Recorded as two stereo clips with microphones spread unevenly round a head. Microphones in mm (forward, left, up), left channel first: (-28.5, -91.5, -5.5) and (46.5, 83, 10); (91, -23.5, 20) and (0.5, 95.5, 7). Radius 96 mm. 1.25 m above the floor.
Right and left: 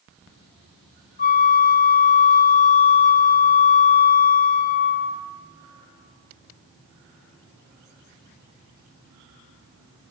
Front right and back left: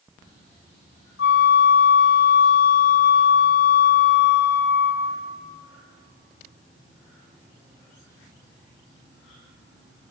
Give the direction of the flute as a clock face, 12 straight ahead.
2 o'clock.